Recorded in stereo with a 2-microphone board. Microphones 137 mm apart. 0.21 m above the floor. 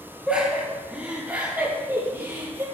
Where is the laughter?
10° right (ahead or behind), 5 m; by 2.7 s 25° right (ahead or behind), 4 m.